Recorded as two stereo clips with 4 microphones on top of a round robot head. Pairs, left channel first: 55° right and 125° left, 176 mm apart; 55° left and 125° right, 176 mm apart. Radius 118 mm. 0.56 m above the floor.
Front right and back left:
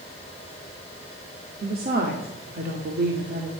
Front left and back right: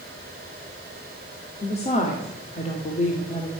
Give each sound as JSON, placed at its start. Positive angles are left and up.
{"t": 1.6, "sound": "a woman speaking", "azimuth_deg": 105, "distance_m": 2.0}